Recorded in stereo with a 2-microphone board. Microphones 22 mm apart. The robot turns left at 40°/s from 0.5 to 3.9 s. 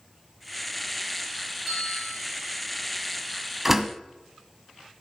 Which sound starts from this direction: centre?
A bell, at 1.7 s.